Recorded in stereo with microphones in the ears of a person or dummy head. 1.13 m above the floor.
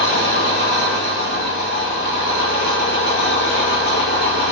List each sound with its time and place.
0.0 s an engine running: 55° left (ahead or behind), 1.6 m